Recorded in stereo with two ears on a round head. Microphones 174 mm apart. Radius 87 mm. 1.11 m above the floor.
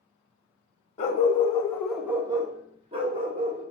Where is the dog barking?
35° left (ahead or behind), 0.7 m; by 3.6 s 35° right (ahead or behind), 1.3 m.